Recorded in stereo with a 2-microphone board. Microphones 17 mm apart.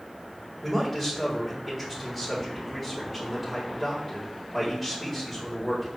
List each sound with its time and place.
0.6 s a man speaking: centre (ahead or behind), 4 m